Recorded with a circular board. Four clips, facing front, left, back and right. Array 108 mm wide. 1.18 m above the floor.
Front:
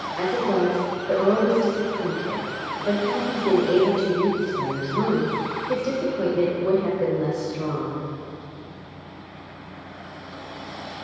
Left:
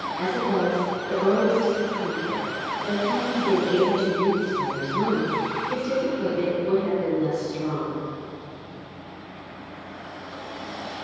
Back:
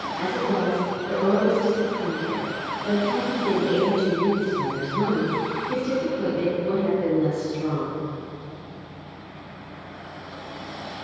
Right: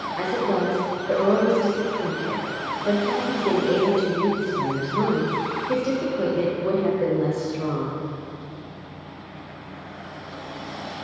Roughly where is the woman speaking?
Ahead right.